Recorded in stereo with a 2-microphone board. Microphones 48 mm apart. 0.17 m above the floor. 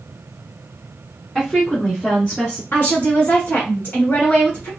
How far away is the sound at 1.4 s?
About 1.2 m.